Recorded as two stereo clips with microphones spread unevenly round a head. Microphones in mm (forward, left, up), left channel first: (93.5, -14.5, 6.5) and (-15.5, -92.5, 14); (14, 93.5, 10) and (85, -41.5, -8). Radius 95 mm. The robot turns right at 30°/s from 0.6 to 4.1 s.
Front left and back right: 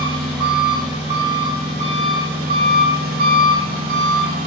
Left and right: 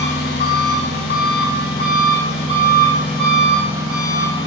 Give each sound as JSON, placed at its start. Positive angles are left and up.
{"t": 0.0, "sound": "an engine running", "azimuth_deg": 125, "distance_m": 1.6}